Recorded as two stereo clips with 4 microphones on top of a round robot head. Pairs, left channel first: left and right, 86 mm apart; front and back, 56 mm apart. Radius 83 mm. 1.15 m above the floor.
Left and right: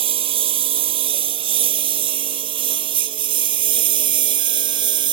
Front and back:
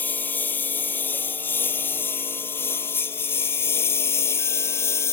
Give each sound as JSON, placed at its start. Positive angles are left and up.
{"t": 0.0, "sound": "a lawn mower", "azimuth_deg": -65}